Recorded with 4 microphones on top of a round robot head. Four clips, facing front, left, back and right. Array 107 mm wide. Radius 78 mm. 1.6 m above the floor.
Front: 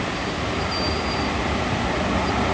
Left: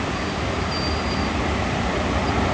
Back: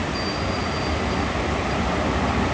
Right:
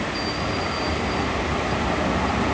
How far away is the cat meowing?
I don't hear a cat meowing.